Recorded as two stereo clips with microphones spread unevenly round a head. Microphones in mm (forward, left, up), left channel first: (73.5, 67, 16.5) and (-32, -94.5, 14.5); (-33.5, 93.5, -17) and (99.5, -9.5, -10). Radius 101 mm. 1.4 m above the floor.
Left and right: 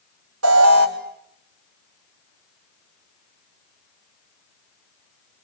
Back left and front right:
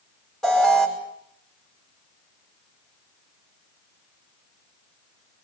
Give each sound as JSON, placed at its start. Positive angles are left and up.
{"t": 0.4, "sound": "an alarm", "azimuth_deg": -130, "distance_m": 5.0}